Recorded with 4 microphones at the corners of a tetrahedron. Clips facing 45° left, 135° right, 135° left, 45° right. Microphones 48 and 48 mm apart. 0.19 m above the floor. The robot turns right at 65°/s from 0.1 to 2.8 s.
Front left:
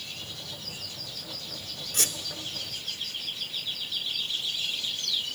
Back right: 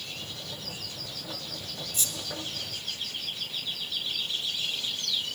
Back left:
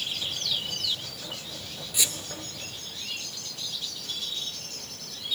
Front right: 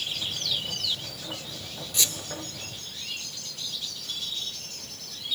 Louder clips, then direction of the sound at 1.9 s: Front left 6 dB, even; 55° left.